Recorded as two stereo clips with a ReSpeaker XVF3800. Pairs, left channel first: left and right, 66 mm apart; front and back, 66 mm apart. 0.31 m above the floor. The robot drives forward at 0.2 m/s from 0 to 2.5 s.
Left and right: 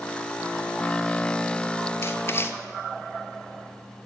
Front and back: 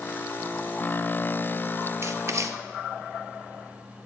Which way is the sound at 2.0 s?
135° left.